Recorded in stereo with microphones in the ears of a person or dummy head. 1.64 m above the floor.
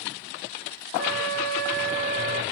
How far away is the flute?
About 1.8 m.